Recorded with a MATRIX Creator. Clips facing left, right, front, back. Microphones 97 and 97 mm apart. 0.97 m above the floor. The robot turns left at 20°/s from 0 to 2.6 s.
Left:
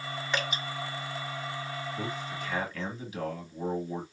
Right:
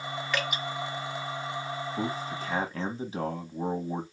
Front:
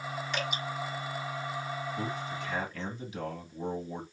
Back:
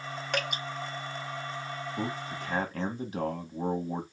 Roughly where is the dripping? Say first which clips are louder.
Right 1 dB, back 3 dB; behind left.